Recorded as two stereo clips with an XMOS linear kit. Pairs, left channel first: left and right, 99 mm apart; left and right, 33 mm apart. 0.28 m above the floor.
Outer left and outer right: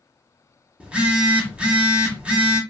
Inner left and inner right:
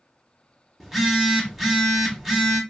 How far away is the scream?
No scream in this recording.